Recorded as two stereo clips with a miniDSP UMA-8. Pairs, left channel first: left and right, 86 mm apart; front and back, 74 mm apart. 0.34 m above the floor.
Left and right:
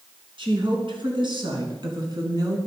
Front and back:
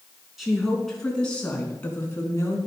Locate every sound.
0.4 s a woman speaking: 90° right, 3.5 m; by 2.6 s 50° right, 3.5 m